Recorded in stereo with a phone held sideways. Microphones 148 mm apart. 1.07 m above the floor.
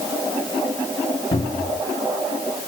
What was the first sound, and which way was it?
A cupboard door, 35° left (ahead or behind).